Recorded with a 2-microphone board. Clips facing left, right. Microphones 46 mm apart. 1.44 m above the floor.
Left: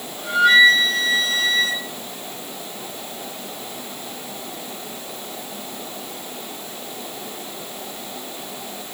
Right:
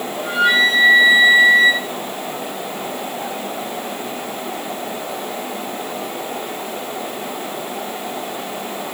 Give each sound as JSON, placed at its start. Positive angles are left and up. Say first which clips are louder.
{"t": 0.2, "sound": "a flute", "louder": "left 2 dB", "side_deg": -25, "distance_m": 4.0}